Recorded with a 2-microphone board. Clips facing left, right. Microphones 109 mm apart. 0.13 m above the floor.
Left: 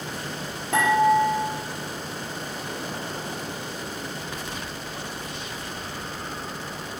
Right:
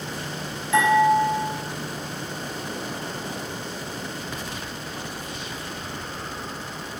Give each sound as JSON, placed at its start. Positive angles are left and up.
{"t": 0.7, "sound": "dishes clattering", "side_deg": 55, "distance_m": 1.4}